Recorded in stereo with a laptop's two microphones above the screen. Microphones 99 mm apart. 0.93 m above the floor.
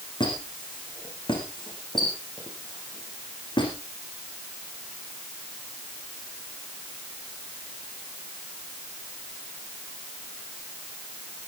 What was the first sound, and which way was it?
A squeak, 50° left (ahead or behind).